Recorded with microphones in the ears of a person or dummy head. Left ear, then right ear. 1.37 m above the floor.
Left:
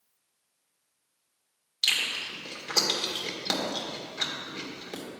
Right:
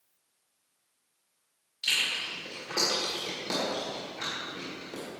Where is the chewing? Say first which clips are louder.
Left 1 dB; 50° left (ahead or behind), 1.7 m.